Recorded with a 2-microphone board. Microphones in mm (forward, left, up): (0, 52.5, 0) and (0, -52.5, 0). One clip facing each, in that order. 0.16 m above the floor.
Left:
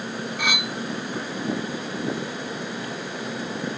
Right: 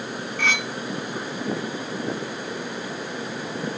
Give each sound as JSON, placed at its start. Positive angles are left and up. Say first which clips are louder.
{"t": 0.4, "sound": "cutlery clinking", "louder": "right 2 dB", "side_deg": 10}